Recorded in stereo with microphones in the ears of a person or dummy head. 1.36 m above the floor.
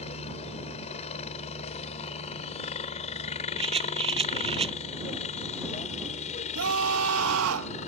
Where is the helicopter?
35° left (ahead or behind); by 7.9 s 40° left (ahead or behind).